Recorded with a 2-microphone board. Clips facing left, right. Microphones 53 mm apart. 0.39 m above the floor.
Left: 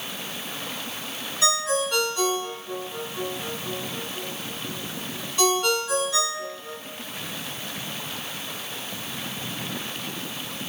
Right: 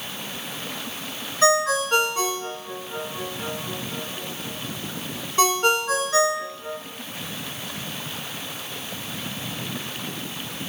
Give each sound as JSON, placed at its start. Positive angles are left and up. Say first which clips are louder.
{"t": 1.4, "sound": "a ringtone", "louder": "right 5 dB", "side_deg": -35, "distance_m": 2.5}